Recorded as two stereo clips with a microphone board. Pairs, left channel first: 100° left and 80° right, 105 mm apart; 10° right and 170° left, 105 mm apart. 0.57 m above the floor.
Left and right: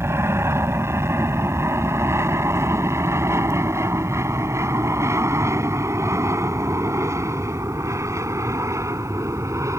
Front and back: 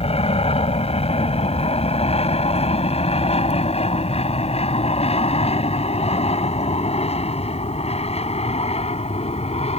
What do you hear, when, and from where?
0.0 s an aircraft: 15° right; by 9.8 s 20° right